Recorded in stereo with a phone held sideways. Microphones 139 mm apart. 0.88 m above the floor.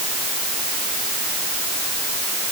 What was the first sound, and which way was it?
Only background noise.